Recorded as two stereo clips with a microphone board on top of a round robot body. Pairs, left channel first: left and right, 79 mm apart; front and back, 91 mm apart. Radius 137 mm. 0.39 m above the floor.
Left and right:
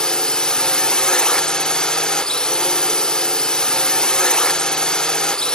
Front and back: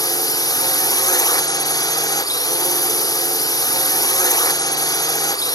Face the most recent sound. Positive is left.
turn(degrees=15)